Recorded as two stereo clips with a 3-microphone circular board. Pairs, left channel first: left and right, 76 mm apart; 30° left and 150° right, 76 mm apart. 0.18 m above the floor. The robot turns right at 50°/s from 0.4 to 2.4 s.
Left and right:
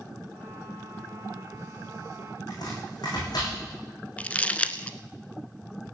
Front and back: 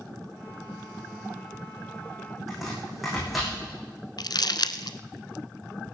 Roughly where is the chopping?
Behind left.